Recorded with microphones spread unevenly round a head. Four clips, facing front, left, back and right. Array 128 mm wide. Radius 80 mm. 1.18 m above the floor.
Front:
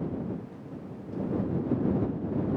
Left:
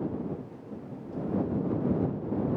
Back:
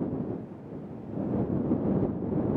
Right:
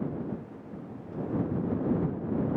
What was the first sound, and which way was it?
Only background noise.